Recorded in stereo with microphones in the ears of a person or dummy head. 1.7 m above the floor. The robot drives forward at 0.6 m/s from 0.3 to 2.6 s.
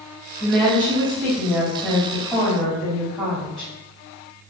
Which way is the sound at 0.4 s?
10° left (ahead or behind).